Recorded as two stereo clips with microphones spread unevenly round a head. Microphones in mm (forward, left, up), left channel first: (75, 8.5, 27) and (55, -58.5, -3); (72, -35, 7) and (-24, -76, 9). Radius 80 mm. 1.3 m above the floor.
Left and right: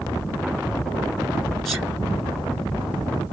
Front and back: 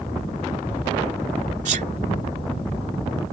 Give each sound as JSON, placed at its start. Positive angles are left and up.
{"t": 1.6, "sound": "a sneeze", "azimuth_deg": 165}